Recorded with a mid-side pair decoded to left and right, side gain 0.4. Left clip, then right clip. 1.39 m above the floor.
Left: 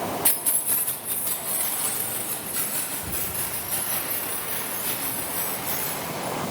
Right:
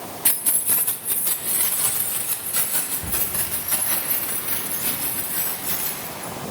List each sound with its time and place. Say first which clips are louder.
0.2 s keys jangling: right 2 dB; 15° right, 1.0 m; by 6.3 s 60° right, 10 m